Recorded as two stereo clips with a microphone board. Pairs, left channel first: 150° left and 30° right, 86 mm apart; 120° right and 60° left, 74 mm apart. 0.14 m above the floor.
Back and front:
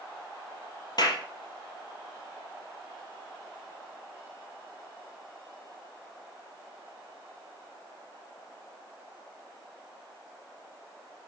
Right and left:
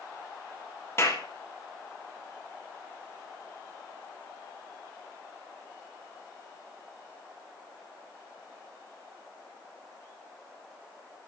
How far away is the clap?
About 3 m.